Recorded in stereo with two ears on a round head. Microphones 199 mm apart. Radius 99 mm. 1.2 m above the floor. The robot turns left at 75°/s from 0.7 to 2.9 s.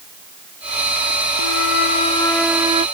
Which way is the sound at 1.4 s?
80° left.